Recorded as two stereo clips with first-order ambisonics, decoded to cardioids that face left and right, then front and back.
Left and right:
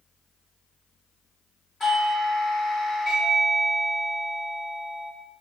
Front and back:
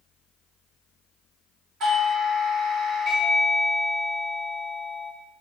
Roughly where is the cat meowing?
No cat meowing in this recording.